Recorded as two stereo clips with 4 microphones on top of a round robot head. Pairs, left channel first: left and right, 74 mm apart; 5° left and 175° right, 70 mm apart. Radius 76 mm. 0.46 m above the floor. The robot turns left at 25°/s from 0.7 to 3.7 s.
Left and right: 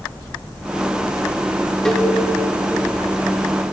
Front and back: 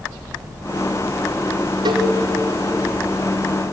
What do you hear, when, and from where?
1.9 s a cowbell: 175° left, 2.0 m; by 2.1 s 170° left, 2.0 m